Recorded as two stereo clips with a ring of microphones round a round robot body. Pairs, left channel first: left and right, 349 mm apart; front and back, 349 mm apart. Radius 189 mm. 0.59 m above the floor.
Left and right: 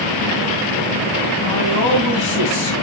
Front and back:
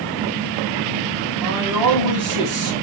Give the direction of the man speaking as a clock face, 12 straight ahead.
7 o'clock.